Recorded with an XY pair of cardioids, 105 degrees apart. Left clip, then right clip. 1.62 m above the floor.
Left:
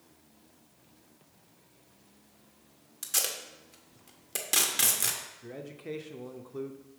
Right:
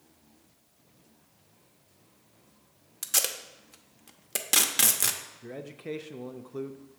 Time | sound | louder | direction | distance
3.0 | tape being pulled | right 3 dB | 35° right | 0.6 m
5.4 | a man speaking | right 2 dB | 25° right | 0.5 m